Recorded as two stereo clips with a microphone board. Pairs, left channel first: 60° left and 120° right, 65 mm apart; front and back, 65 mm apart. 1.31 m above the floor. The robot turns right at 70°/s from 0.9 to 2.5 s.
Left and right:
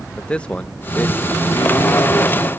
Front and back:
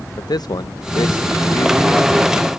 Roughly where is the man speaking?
Ahead.